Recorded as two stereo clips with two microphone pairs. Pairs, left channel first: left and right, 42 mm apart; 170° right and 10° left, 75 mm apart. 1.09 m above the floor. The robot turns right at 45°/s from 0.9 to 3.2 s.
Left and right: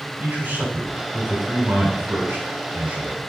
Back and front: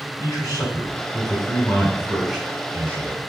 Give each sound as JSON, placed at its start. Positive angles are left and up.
{"t": 0.2, "sound": "a man speaking", "azimuth_deg": -135, "distance_m": 6.5}